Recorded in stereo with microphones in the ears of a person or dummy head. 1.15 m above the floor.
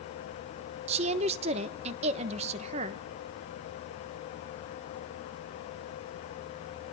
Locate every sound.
0.9 s a woman speaking: 35° right (ahead or behind), 0.9 m